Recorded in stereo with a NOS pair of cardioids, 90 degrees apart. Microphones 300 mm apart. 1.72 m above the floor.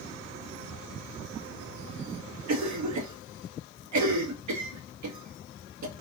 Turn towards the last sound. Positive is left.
turn(degrees=-65)